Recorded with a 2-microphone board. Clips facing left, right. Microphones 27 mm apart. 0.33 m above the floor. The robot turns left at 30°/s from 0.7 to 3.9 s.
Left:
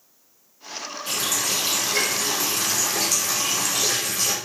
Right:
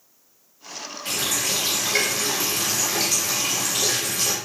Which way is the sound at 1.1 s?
85° right.